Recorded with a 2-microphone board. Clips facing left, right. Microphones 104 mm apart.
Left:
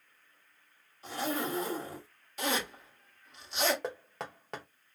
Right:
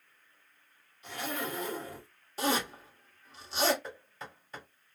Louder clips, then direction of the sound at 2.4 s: Right 3 dB; 35° right (ahead or behind).